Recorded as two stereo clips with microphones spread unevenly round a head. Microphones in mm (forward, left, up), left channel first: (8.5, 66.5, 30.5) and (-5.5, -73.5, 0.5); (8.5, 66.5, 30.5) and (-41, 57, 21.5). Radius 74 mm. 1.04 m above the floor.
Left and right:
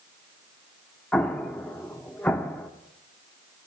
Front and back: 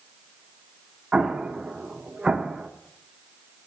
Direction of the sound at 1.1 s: 115° left.